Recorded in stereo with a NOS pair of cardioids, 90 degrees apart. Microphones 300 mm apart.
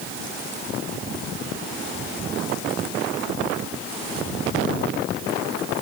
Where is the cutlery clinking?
I don't hear cutlery clinking.